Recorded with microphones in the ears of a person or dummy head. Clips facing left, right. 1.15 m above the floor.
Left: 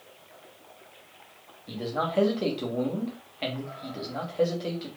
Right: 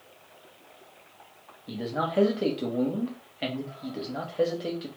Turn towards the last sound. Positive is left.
turn(degrees=-10)  # may be behind; listen again after turning